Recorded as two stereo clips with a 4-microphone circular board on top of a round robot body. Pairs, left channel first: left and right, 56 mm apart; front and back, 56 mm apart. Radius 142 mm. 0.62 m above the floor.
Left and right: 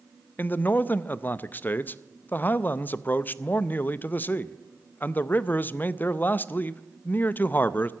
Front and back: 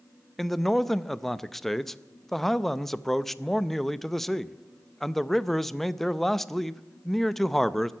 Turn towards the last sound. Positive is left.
turn(degrees=85)